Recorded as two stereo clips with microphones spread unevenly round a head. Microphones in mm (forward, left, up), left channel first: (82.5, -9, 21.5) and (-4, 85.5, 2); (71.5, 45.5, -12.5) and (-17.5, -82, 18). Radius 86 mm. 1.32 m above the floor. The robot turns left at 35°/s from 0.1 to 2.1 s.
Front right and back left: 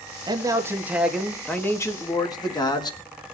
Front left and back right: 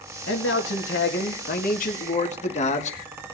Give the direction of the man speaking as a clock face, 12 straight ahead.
9 o'clock.